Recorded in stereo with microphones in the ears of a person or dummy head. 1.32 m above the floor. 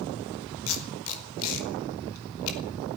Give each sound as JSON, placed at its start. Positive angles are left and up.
{"t": 0.7, "sound": "tape being pulled", "side_deg": 80, "distance_m": 5.0}